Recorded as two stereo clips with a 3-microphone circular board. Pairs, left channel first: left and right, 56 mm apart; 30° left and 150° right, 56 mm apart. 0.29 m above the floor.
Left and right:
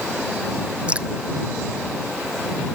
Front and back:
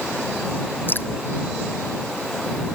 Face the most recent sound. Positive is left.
turn(degrees=-20)